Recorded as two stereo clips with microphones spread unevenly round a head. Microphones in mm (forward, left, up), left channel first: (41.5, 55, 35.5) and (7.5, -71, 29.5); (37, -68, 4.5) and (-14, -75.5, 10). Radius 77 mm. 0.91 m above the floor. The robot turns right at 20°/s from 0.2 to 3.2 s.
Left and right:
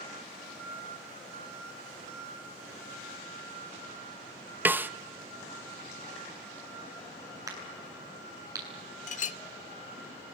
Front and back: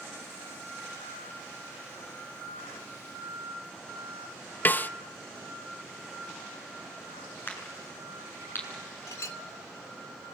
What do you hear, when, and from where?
4.7 s a snare drum: 30° right, 0.9 m
7.5 s a crack: 40° right, 8.5 m
9.1 s a clink: 50° left, 0.8 m